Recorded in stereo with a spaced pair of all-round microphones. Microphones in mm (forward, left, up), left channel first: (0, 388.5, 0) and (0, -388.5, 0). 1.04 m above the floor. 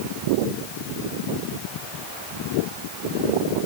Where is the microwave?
I don't hear a microwave.